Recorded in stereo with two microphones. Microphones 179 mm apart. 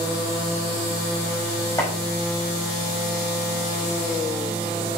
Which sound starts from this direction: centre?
Chopping, at 1.8 s.